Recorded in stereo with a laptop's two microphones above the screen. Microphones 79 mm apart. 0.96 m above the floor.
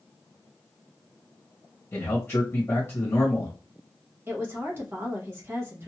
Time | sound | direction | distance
1.9 | a man speaking | 30° left (ahead or behind) | 1.3 m
4.3 | a woman speaking | 30° right (ahead or behind) | 1.3 m